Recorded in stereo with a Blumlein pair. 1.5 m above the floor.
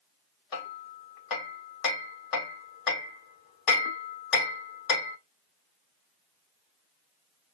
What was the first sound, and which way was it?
Hammering, 35° left.